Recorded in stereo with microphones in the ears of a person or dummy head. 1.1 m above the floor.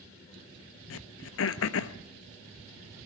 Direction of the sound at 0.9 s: 70° left (ahead or behind).